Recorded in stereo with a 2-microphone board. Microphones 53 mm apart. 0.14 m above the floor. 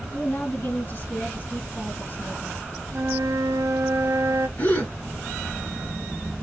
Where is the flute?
70° right (ahead or behind), 0.6 m.